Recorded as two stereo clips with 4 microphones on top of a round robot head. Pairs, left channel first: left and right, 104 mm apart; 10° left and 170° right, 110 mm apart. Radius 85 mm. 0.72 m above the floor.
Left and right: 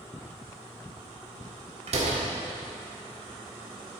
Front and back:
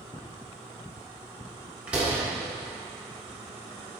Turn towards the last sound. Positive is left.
turn(degrees=-90)